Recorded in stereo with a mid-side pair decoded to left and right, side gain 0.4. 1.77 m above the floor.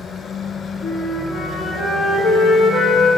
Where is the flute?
60° left, 1.2 m.